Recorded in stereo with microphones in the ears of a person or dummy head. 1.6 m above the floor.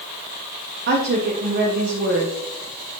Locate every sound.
0.9 s a woman speaking: 70° right (ahead or behind), 1.3 m